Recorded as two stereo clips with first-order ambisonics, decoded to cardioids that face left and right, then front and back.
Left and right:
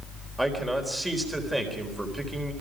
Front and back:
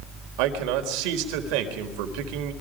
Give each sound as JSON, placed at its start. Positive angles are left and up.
{"t": 0.4, "sound": "a man speaking", "azimuth_deg": -175, "distance_m": 4.0}